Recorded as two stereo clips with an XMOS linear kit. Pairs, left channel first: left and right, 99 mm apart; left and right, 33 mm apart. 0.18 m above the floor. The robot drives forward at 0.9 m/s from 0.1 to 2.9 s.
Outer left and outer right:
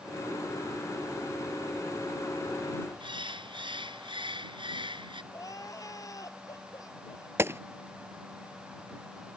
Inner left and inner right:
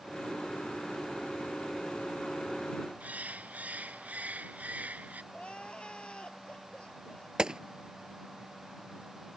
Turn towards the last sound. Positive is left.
turn(degrees=-25)  # may be behind; listen again after turning